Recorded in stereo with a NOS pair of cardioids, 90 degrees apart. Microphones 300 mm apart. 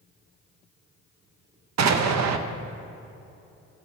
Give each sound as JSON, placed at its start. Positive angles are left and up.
{"t": 1.8, "sound": "an explosion", "azimuth_deg": -60, "distance_m": 0.8}